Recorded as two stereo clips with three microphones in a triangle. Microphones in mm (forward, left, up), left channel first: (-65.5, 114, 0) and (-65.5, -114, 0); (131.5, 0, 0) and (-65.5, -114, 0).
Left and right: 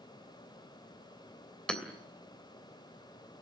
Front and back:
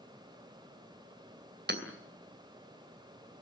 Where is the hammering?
175° left, 2.5 m.